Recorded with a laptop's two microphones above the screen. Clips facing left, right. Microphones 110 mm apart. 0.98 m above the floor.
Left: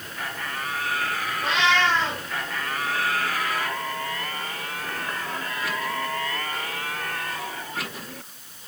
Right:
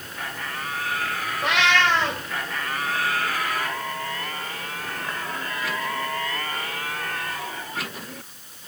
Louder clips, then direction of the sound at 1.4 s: Right 1 dB; 85° right.